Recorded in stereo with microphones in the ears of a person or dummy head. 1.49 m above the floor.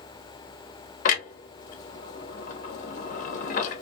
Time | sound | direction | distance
1.1 | a clunk | 45° left (ahead or behind) | 0.7 m